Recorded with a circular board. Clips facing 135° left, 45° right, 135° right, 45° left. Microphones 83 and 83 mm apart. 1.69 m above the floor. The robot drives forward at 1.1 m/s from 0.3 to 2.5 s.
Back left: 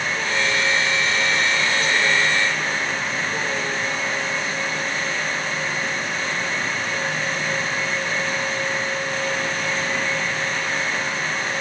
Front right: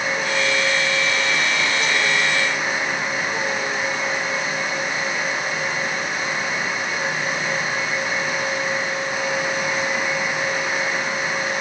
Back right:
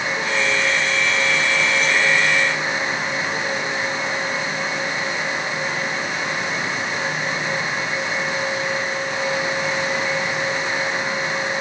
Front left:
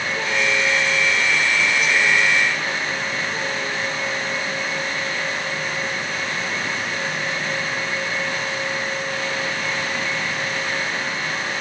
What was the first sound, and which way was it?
Only background noise.